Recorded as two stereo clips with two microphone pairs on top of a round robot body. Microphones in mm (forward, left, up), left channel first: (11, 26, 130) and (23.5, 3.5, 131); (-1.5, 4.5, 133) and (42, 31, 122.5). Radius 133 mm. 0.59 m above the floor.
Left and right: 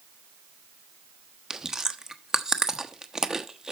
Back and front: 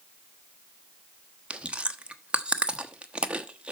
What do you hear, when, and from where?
1.5 s chewing: 5° right, 1.2 m